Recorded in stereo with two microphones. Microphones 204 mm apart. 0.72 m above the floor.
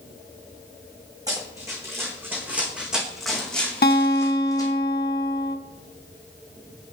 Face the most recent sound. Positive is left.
turn(degrees=50)  # may be behind; listen again after turning